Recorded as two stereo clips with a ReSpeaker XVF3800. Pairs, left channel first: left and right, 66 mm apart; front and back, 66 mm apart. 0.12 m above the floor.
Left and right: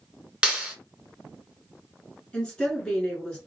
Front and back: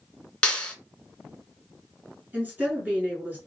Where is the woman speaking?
150° left, 1.5 m.